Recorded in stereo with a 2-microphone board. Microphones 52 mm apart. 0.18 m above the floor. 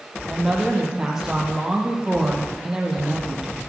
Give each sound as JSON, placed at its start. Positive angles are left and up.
{"t": 0.3, "sound": "a woman speaking", "side_deg": -10, "distance_m": 6.0}